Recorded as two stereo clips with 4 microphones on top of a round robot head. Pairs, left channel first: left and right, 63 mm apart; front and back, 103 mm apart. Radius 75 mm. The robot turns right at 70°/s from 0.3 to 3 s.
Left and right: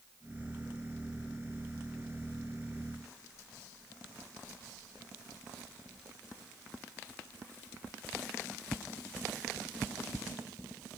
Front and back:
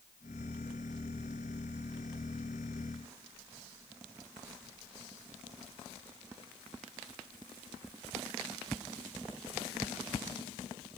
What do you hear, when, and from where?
Only background noise.